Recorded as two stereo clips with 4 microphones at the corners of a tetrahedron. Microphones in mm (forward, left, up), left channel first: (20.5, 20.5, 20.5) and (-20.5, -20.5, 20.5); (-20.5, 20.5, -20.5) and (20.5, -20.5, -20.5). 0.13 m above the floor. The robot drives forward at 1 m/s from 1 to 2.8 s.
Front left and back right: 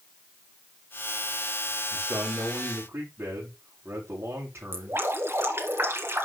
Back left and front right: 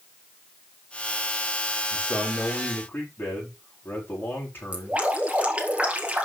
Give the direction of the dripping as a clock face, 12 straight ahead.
4 o'clock.